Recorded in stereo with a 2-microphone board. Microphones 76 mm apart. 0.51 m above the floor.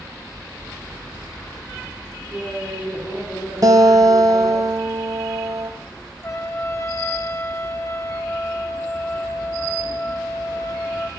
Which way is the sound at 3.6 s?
50° right (ahead or behind).